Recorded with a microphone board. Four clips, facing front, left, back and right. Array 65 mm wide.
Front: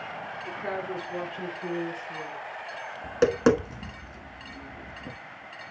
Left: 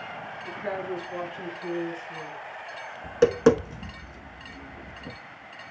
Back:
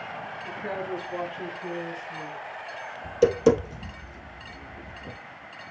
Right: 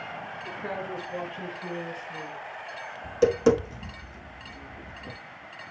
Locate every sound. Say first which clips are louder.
0.4 s a woman speaking: left 3 dB, even; 10° left, 2.5 m; by 2.4 s 10° right, 3.5 m
3.0 s tapping: left 2 dB, back 2 dB; 30° left, 0.9 m